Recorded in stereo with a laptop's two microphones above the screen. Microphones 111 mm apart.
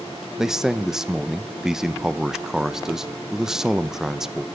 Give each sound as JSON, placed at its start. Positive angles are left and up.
{"t": 0.4, "sound": "a man speaking", "side_deg": -5, "distance_m": 0.6}